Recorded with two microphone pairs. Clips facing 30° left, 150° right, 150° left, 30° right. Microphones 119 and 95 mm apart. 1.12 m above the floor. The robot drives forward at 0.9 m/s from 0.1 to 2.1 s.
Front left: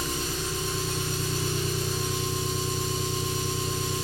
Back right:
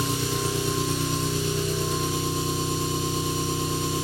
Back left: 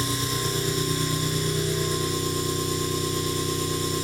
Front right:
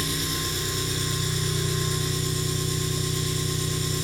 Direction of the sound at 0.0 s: 150° right.